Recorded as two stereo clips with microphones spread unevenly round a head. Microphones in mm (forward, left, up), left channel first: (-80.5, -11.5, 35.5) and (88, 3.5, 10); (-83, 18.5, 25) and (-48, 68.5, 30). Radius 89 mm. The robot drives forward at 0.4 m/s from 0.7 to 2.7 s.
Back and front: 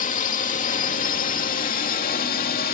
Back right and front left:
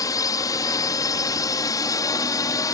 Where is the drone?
130° right; by 2.8 s 135° right.